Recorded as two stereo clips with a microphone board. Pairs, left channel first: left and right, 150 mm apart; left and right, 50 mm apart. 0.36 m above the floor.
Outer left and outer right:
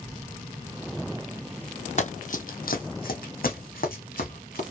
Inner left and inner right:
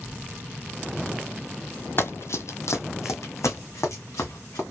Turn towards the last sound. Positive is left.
turn(degrees=70)  # may be behind; listen again after turning